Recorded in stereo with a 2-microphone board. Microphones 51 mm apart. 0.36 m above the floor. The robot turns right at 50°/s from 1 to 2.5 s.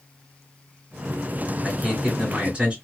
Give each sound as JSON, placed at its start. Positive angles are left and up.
{"t": 1.6, "sound": "a man speaking", "side_deg": -5, "distance_m": 1.5}